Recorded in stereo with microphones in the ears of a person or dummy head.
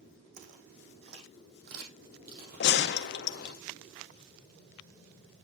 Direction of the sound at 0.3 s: 55° right (ahead or behind).